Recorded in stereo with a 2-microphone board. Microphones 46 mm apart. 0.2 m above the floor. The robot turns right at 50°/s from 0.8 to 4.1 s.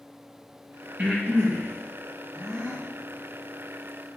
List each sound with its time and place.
1.0 s breathing: 35° right (ahead or behind), 3 m; by 2.8 s 50° right (ahead or behind), 3 m